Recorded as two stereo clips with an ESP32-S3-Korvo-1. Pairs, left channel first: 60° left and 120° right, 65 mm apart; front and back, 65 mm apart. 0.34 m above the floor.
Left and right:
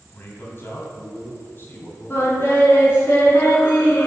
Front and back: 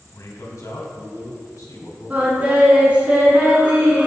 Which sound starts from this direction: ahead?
A man speaking, at 0.1 s.